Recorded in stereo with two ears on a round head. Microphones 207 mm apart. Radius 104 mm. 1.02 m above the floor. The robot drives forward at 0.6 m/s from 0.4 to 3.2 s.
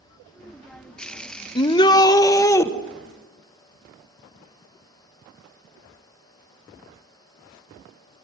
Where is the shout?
20° left (ahead or behind), 0.8 m; by 2.7 s 15° left (ahead or behind), 1.2 m.